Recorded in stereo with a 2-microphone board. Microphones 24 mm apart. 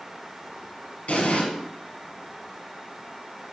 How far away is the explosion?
About 1.9 m.